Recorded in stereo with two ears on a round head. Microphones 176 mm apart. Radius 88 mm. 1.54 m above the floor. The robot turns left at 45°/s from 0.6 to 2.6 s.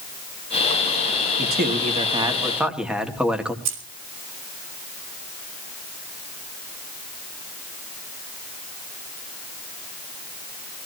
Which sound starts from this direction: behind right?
A man speaking, at 1.4 s.